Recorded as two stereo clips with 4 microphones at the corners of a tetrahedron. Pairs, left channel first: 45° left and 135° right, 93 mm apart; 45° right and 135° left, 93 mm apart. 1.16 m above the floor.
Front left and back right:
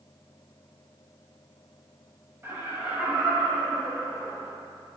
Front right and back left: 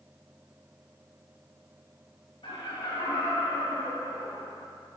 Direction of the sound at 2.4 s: 70° right.